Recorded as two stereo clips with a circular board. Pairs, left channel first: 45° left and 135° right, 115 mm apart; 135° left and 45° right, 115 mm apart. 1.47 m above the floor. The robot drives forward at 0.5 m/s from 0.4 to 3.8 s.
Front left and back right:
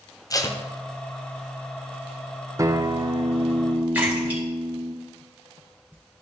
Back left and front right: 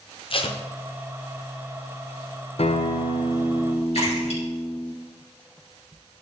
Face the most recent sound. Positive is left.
turn(degrees=150)